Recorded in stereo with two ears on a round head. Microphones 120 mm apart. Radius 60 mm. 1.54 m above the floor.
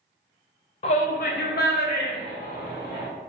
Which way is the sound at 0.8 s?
45° left (ahead or behind).